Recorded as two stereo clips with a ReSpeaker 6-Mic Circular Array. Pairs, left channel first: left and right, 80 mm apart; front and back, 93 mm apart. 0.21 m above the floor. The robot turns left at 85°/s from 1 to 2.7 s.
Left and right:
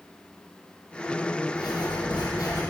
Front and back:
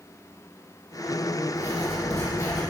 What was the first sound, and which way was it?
Writing, 120° left.